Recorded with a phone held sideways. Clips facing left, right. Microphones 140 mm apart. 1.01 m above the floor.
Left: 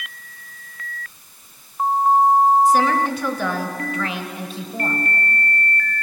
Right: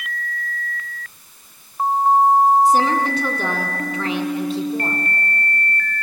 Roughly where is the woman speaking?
Right.